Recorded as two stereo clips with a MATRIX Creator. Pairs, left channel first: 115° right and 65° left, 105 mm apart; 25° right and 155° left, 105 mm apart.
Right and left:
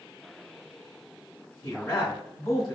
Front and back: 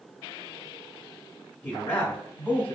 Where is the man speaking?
80° right, 0.9 m.